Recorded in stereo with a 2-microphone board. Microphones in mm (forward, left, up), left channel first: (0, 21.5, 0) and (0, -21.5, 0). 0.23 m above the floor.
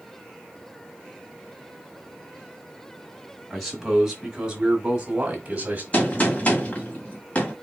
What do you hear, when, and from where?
3.5 s a man speaking: 5° right (ahead or behind), 1.9 m; by 5.8 s 35° right (ahead or behind), 1.8 m
5.9 s a gunshot: 30° left (ahead or behind), 1.7 m